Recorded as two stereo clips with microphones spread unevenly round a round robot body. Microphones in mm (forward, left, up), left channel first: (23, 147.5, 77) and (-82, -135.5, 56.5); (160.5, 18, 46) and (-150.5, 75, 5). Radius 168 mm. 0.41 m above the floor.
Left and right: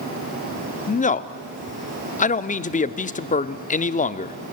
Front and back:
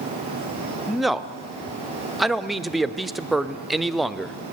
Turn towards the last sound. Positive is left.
turn(degrees=100)